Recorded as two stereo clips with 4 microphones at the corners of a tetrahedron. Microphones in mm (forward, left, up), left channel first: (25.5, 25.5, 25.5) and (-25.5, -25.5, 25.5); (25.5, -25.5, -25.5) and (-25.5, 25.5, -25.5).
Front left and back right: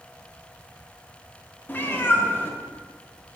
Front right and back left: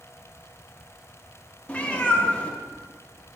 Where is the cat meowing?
10° left, 1.0 m.